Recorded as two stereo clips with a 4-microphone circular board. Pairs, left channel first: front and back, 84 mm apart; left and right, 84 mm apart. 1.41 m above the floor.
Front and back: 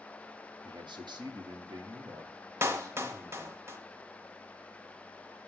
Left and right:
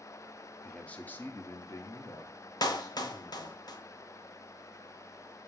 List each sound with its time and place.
0.6 s a man speaking: 170° left, 1.2 m; by 3.6 s 125° left, 3 m
2.6 s a clap: 120° left, 0.9 m